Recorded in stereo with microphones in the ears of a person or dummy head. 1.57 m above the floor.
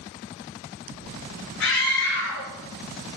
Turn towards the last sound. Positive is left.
turn(degrees=85)